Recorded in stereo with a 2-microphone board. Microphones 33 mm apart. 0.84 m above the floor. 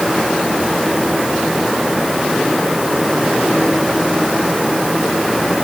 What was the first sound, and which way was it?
Only background noise.